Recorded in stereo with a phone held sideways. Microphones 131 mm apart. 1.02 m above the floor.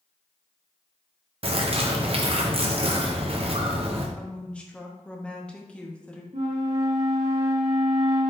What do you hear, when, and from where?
1.4 s a bird: 45° right (ahead or behind), 0.6 m
4.2 s a woman speaking: 10° left (ahead or behind), 0.7 m
6.3 s a flute: 60° right (ahead or behind), 1.7 m